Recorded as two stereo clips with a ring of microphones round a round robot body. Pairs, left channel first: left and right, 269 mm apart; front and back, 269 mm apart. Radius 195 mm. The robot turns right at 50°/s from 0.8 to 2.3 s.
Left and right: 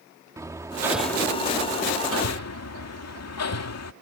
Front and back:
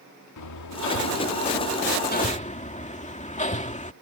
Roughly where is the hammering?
Ahead.